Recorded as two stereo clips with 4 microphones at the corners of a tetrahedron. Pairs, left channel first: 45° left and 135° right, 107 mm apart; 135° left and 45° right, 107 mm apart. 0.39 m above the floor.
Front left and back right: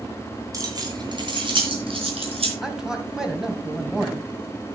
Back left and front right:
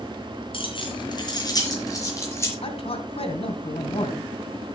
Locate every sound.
0.5 s keys jangling: 170° left, 3.5 m; by 2.5 s 160° right, 5 m
2.6 s a man speaking: 140° left, 2.5 m